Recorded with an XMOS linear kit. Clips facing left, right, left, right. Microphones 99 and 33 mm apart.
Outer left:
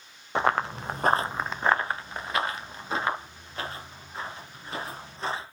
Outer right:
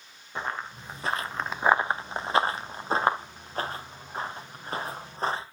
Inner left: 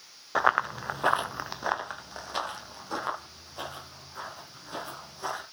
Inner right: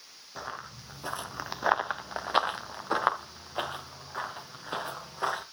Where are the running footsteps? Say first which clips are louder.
Outer left 9 dB, inner left 16 dB; 80° left, 1.3 m; by 5.4 s 45° right (ahead or behind), 6 m.